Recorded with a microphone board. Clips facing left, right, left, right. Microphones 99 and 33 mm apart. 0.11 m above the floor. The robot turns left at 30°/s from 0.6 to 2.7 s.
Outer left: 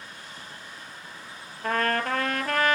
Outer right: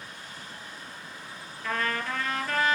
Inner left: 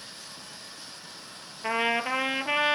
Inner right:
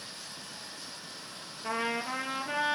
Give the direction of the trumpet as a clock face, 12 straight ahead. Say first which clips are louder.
Outer left 5 dB, inner left 6 dB; 8 o'clock.